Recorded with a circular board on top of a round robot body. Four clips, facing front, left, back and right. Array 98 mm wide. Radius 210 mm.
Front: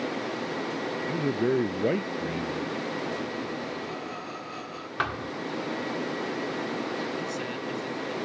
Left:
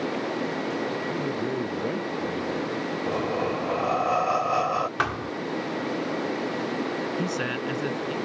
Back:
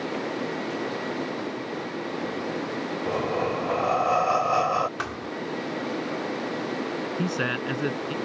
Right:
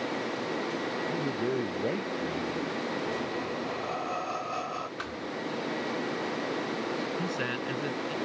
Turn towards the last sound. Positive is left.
turn(degrees=170)